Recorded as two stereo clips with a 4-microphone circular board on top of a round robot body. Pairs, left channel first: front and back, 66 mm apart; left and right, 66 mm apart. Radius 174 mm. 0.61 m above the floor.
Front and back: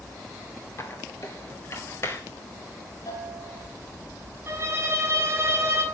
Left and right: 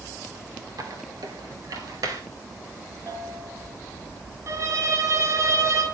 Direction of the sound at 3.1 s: 30° right.